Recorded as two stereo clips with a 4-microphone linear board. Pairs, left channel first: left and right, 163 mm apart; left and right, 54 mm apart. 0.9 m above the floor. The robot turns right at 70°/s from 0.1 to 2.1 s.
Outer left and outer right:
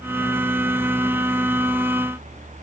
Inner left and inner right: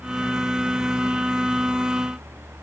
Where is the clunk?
No clunk in this recording.